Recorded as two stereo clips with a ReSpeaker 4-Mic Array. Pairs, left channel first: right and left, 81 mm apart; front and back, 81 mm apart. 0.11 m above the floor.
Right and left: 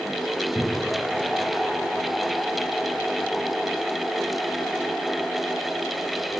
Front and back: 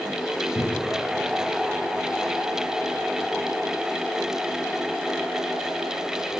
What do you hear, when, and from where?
0.6 s a cupboard door: 25° right, 2.5 m